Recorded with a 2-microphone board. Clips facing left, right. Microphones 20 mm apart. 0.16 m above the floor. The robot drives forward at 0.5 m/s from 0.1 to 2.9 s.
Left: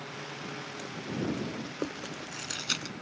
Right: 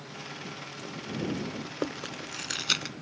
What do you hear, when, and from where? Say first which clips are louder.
1.6 s chewing: right 2 dB; 15° right (ahead or behind); by 2.9 s 20° right (ahead or behind)